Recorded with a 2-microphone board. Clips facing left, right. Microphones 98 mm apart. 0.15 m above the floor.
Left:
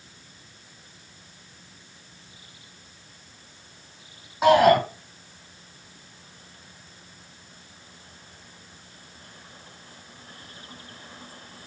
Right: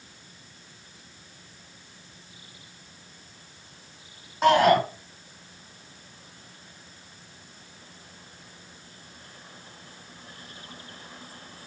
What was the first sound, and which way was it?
A shout, 5° left (ahead or behind).